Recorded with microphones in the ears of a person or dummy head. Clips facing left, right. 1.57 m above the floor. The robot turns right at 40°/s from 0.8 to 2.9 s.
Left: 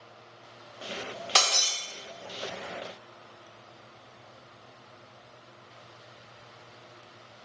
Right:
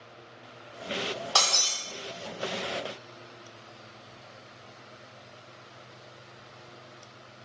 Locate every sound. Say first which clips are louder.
1.4 s breaking glass: left 4 dB; 25° left (ahead or behind), 0.8 m; by 1.7 s 30° left (ahead or behind), 0.8 m